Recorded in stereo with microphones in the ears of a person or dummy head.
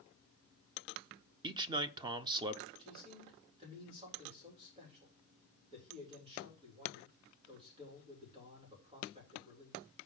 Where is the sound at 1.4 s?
25° right (ahead or behind), 0.7 m.